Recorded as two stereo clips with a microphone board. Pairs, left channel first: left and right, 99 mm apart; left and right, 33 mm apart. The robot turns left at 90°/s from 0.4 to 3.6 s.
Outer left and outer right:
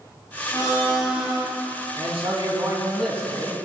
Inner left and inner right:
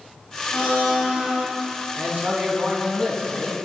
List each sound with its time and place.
0.5 s a blender: 50° left, 4 m; by 1.4 s 35° right, 4 m
2.0 s a man speaking: 90° right, 2.5 m; by 3.6 s 125° left, 2.5 m